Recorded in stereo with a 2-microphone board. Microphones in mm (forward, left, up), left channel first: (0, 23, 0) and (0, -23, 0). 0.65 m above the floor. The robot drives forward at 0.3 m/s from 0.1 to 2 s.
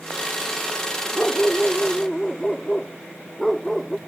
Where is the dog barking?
15° left (ahead or behind).